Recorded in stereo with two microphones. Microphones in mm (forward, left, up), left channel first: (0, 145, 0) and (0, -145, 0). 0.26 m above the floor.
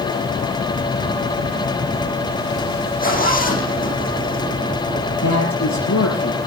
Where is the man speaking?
70° left (ahead or behind), 7 m.